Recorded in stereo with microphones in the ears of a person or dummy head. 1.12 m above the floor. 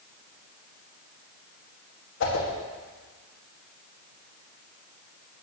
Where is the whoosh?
70° left (ahead or behind), 1.8 m.